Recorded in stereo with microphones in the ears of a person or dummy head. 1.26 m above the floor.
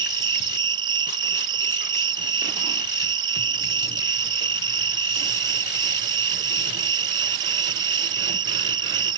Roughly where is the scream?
No scream in this recording.